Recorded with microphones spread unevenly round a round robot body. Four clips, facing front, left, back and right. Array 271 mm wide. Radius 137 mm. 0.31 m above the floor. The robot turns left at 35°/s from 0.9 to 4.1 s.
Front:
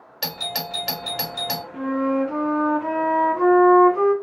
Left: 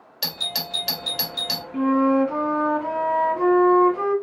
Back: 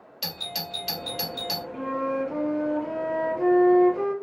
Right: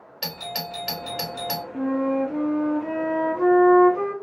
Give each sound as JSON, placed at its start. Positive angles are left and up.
{"t": 0.2, "sound": "a doorbell", "azimuth_deg": -5, "distance_m": 1.5}
{"t": 1.7, "sound": "a flute", "azimuth_deg": 80, "distance_m": 1.7}